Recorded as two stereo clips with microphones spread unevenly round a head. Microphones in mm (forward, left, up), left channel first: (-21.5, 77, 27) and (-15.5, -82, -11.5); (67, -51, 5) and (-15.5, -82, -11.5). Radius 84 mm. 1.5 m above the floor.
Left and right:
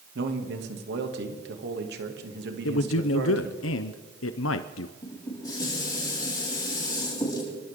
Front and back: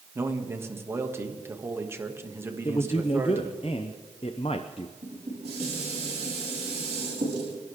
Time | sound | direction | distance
0.1 | a man speaking | 100° right | 2.5 m
2.6 | a man speaking | 80° left | 0.7 m
5.0 | dishes clattering | 155° left | 7.5 m